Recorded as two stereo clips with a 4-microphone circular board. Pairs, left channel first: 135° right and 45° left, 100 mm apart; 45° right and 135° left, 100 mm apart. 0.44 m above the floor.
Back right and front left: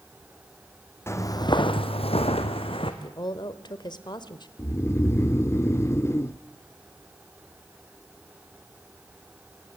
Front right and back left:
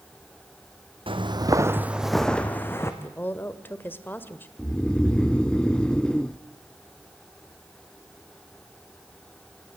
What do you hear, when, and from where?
1.1 s footsteps: 160° left, 1.5 m; by 2.9 s 110° right, 2 m
3.0 s a woman speaking: 110° right, 1.3 m
4.6 s snoring: 115° right, 0.6 m